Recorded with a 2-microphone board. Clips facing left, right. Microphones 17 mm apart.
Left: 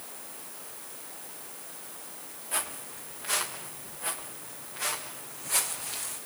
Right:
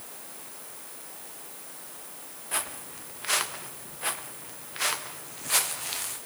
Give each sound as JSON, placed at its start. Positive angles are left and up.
{"t": 2.5, "sound": "footsteps", "side_deg": -25, "distance_m": 2.5}